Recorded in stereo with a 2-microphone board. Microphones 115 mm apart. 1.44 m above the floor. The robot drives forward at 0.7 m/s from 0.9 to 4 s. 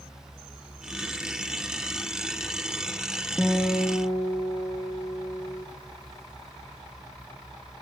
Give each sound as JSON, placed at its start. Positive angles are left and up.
{"t": 3.4, "sound": "a guitar", "side_deg": 15, "distance_m": 3.0}